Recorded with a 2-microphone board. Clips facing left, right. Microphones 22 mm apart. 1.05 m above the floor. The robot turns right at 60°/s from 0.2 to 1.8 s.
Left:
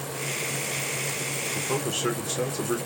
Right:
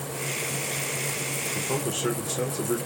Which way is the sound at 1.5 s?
10° left (ahead or behind).